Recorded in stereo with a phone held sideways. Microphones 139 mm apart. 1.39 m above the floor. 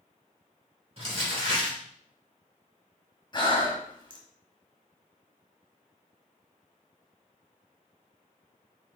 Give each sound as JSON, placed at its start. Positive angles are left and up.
{"t": 1.0, "sound": "crumpling", "side_deg": -45, "distance_m": 2.5}
{"t": 3.3, "sound": "breathing", "side_deg": 30, "distance_m": 1.1}